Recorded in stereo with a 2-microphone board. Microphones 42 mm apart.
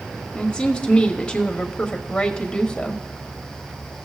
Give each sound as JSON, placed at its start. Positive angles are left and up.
{"t": 0.3, "sound": "a woman speaking", "side_deg": 20, "distance_m": 1.0}